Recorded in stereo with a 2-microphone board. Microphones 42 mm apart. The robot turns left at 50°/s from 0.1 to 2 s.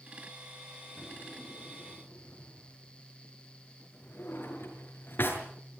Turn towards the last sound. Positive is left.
turn(degrees=55)  # may be behind; listen again after turning